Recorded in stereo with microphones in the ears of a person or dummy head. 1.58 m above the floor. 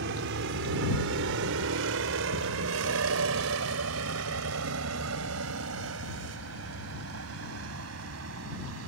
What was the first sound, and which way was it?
A vehicle, 55° right (ahead or behind).